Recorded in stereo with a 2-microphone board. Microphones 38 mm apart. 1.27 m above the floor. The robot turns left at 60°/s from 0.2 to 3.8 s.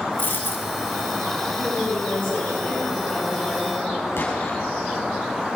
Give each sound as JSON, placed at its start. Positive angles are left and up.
{"t": 0.2, "sound": "a dropped coin", "azimuth_deg": 120, "distance_m": 1.8}
{"t": 1.5, "sound": "a woman speaking", "azimuth_deg": 155, "distance_m": 5.5}
{"t": 4.2, "sound": "an explosion", "side_deg": 80, "distance_m": 5.0}